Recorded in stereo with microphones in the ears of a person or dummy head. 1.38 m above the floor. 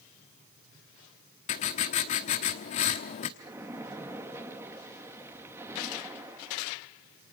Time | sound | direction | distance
1.5 | writing | 35° left (ahead or behind) | 1.1 m
3.4 | a splash | 15° right (ahead or behind) | 2 m